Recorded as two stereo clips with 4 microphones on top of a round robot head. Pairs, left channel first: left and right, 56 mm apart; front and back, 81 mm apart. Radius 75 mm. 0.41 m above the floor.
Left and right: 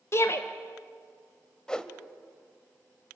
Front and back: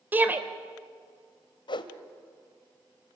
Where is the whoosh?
15° left, 1.6 m.